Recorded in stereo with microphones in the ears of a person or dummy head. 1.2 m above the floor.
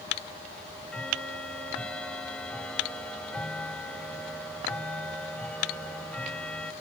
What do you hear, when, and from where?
0.5 s ticking: 10° left (ahead or behind)